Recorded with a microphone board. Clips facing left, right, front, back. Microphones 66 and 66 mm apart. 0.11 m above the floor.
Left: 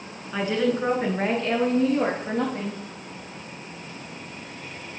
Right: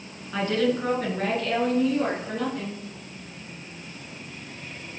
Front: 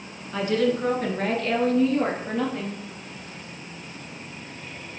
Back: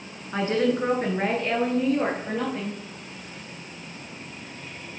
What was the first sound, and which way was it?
A woman speaking, 165° left.